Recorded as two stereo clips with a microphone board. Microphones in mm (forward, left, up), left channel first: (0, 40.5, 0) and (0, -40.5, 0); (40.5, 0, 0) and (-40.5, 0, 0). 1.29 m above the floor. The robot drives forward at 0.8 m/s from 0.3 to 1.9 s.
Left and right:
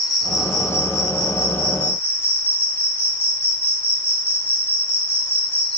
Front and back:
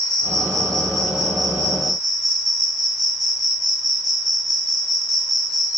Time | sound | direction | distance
0.0 | an insect | 140° left | 3 m